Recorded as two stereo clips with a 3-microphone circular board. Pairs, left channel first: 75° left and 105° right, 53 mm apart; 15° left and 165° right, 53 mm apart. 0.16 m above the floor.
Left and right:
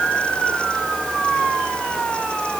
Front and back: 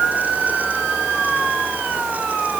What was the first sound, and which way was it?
Only background noise.